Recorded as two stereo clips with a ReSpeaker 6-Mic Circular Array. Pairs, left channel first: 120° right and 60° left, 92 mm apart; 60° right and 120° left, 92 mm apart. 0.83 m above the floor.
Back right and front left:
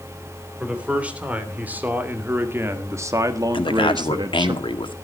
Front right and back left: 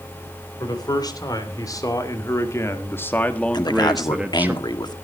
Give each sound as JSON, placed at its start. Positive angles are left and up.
{"t": 0.6, "sound": "a man speaking", "azimuth_deg": -15, "distance_m": 3.5}
{"t": 3.5, "sound": "a man speaking", "azimuth_deg": -95, "distance_m": 1.5}